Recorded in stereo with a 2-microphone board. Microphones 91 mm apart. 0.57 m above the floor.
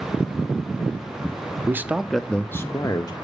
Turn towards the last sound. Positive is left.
turn(degrees=45)  # may be behind; listen again after turning